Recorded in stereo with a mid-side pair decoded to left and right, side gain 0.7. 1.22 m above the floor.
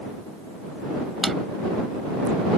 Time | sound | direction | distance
1.2 | a drawer | 20° right | ?